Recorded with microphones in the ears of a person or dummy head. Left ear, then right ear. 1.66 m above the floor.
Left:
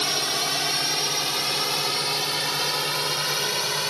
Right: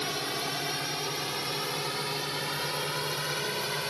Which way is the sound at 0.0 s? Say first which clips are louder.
Left 8 dB; 25° left (ahead or behind).